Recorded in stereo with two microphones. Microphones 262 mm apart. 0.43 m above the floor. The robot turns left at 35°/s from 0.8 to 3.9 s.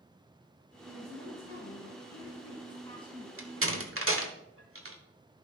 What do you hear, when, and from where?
0.9 s a woman speaking: 80° left, 3 m; by 3.3 s straight ahead, 3 m
3.4 s a door slam: 55° right (ahead or behind), 1.2 m